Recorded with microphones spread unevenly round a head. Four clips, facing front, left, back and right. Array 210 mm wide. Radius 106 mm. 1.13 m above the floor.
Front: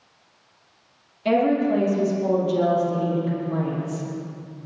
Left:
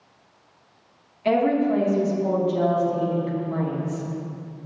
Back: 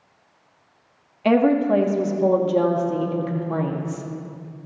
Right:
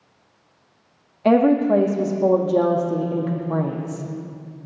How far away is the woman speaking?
About 1.5 m.